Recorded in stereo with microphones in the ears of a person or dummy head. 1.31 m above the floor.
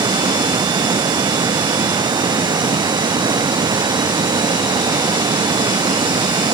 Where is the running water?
15° right (ahead or behind).